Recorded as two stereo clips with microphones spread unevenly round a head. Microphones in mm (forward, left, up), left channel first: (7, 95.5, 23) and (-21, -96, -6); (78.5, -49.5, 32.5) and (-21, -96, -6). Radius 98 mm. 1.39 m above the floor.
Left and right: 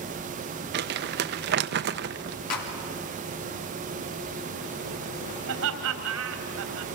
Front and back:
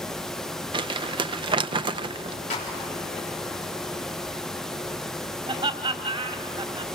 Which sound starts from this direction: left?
A clap, at 2.5 s.